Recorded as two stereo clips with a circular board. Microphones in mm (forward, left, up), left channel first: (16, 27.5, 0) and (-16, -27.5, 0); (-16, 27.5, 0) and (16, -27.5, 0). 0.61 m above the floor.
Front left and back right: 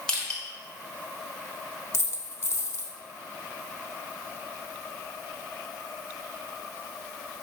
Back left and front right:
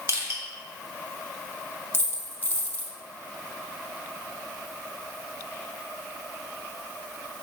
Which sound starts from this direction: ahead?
Crushing, at 0.1 s.